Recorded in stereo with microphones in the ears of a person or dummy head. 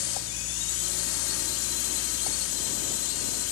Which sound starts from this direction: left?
A drone, at 0.0 s.